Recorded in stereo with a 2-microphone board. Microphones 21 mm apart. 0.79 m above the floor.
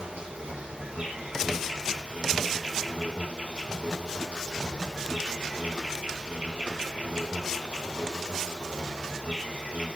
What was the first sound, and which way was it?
An insect, 75° right (ahead or behind).